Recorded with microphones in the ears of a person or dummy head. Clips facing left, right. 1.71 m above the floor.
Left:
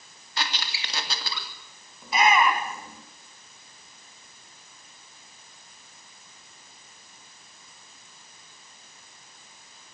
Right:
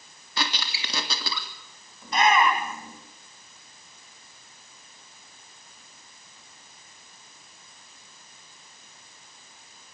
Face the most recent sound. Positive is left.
turn(degrees=5)  # may be behind; listen again after turning